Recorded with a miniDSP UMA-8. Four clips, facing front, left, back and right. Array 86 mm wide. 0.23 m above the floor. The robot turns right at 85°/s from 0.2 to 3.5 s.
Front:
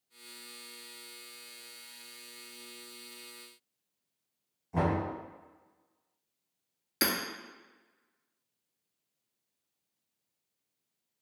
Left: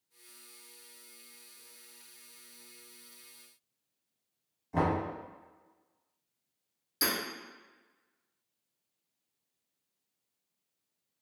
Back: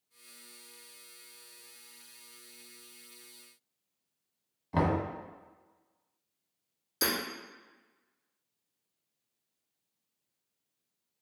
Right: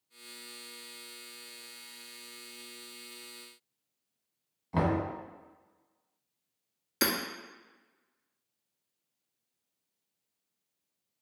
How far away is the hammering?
About 0.9 m.